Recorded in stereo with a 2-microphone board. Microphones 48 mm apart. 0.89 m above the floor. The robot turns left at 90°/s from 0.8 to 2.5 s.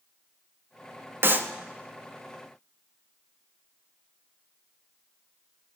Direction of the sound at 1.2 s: 55° right (ahead or behind).